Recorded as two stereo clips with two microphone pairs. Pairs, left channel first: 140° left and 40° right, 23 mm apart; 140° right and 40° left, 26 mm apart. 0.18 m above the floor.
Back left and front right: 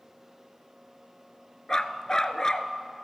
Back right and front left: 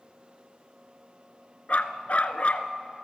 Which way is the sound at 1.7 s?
165° right.